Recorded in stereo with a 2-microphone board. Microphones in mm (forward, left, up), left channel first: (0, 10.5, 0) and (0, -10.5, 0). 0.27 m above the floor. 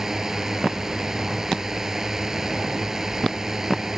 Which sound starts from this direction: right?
A drone, at 0.0 s.